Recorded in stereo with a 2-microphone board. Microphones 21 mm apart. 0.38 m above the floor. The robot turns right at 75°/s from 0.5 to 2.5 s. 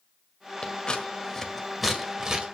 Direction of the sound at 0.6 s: 50° left (ahead or behind).